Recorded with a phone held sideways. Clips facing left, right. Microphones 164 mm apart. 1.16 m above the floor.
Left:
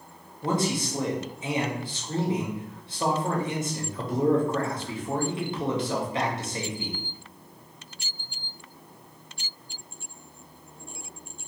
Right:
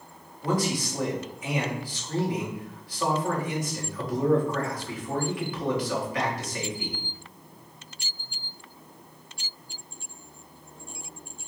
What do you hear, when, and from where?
0.4 s a man speaking: 25° left (ahead or behind), 1.1 m